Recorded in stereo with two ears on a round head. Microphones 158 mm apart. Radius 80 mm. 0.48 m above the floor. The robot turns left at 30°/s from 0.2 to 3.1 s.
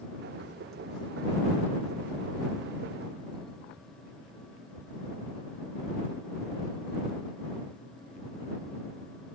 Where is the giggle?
I don't hear a giggle.